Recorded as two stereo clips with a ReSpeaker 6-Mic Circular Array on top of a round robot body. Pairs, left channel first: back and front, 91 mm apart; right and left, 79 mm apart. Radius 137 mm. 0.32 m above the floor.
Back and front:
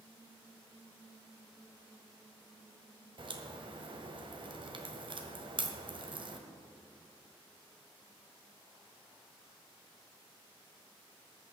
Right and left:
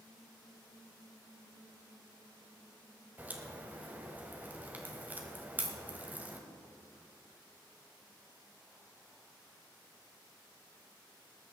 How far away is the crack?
About 1.6 m.